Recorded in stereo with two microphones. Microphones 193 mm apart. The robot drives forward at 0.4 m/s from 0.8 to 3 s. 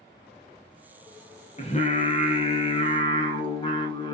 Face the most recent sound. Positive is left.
turn(degrees=25)  # may be behind; listen again after turning